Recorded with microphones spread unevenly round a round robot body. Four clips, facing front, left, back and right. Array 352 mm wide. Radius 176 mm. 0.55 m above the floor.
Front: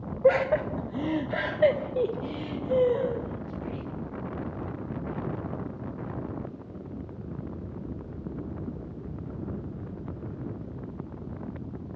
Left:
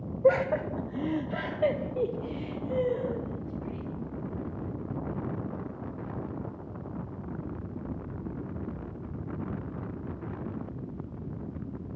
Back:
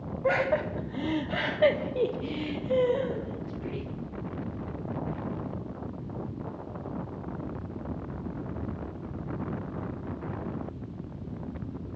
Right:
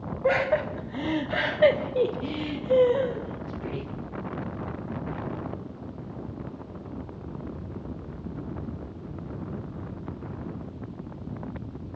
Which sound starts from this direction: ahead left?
Laughter, at 0.2 s.